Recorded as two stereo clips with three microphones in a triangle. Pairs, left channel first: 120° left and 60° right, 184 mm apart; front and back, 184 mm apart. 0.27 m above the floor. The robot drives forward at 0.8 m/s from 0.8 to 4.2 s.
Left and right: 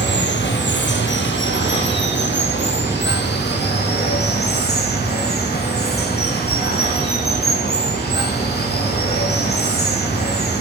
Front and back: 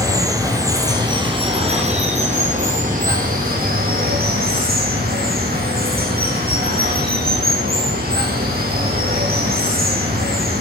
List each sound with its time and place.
0.0 s running water: 110° left, 2.5 m; by 10.6 s 145° left, 4 m